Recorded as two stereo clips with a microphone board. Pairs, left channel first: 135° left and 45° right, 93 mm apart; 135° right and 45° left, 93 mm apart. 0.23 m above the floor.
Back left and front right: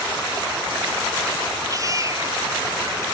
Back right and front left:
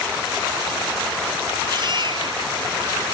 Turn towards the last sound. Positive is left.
turn(degrees=10)